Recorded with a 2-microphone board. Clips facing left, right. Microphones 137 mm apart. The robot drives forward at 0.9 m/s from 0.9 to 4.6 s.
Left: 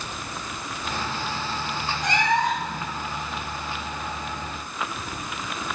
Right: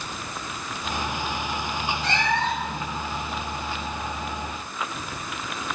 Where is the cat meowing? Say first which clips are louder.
Left 4 dB; 15° left (ahead or behind), 3 m.